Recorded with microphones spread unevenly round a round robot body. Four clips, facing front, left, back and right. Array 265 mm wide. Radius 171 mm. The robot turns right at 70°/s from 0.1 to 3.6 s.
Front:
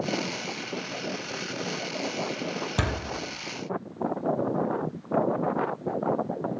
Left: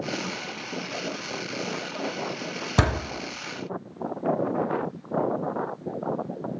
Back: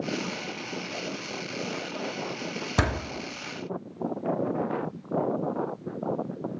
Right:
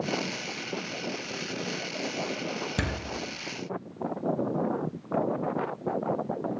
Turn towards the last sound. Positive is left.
turn(degrees=170)